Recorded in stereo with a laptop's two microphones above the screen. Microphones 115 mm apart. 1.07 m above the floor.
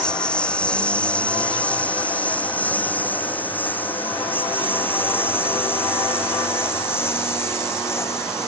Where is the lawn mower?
10° left (ahead or behind); by 8.5 s 25° left (ahead or behind).